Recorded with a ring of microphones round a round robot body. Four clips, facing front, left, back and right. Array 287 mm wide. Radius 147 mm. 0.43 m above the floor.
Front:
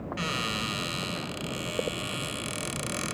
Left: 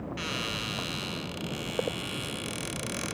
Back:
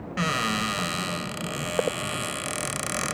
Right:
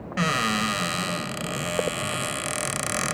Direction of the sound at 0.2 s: 110° right.